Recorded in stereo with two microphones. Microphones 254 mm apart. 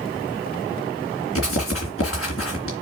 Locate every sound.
1.4 s writing: 60° left (ahead or behind), 3 m